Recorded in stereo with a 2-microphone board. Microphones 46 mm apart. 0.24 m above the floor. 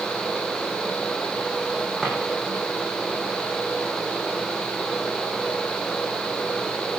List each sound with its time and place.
2.0 s a drawer: centre (ahead or behind), 7 m